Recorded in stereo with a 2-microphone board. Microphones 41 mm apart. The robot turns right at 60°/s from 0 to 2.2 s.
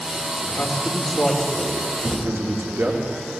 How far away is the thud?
About 4.5 m.